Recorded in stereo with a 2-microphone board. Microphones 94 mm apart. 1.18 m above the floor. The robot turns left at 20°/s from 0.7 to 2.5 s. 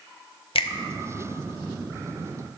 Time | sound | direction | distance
0.6 | a finger snap | 75° left (ahead or behind) | 0.5 m